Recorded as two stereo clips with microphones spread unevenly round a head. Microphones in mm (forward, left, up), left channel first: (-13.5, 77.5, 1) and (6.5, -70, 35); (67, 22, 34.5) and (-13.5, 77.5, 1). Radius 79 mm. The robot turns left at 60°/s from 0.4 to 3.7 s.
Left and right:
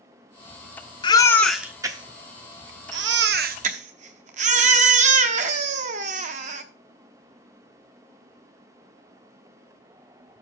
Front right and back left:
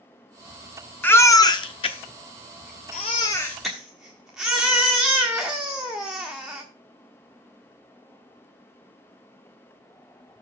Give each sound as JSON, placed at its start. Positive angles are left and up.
{"t": 1.0, "sound": "a baby crying", "azimuth_deg": 35, "distance_m": 1.1}